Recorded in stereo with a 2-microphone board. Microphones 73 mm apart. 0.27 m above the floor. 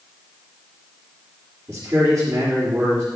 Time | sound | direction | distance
1.7 | a man speaking | 45° right (ahead or behind) | 4.5 m